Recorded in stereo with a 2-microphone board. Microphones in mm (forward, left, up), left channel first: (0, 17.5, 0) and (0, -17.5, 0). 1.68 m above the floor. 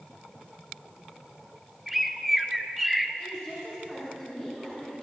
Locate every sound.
1.9 s a bird: 5° right (ahead or behind), 0.5 m
3.2 s a woman speaking: 15° right (ahead or behind), 5.5 m